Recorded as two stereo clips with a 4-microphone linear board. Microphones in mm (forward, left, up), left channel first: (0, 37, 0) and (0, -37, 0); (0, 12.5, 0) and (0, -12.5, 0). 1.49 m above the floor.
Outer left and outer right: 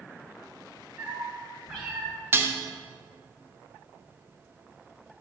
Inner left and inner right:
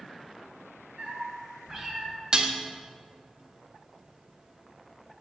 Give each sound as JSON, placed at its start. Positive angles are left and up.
{"t": 1.0, "sound": "a cat meowing", "side_deg": -15, "distance_m": 3.0}
{"t": 2.3, "sound": "dishes clattering", "side_deg": -30, "distance_m": 0.7}